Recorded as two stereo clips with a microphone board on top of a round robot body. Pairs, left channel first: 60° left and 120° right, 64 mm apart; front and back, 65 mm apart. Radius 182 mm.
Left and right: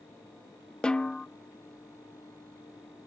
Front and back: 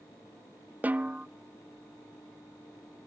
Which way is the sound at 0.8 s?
130° left.